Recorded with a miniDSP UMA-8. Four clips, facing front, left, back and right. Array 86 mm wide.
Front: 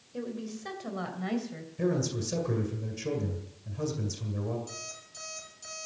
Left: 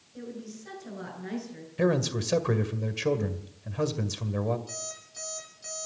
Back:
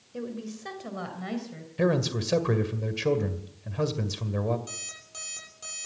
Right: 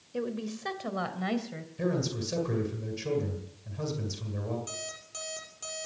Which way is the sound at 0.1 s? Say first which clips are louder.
Right 7 dB, back 1 dB; 95° right.